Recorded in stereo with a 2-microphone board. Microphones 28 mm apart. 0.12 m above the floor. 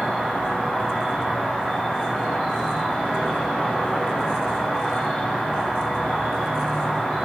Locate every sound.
0.0 s an insect: 60° left (ahead or behind), 1.6 m